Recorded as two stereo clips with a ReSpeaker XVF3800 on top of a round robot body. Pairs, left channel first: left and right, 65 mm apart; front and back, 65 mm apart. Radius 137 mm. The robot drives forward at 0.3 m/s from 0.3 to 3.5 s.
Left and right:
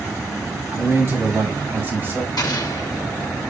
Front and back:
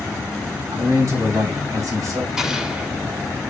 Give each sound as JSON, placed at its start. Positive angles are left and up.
{"t": 0.7, "sound": "a man speaking", "azimuth_deg": -145, "distance_m": 4.0}
{"t": 2.4, "sound": "an explosion", "azimuth_deg": 100, "distance_m": 1.0}